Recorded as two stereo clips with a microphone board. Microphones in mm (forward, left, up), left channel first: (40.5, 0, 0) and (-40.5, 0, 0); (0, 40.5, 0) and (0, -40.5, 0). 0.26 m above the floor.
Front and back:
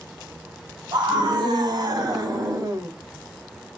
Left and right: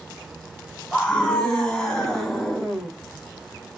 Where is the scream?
170° left, 3 m; by 2.9 s straight behind, 2.0 m.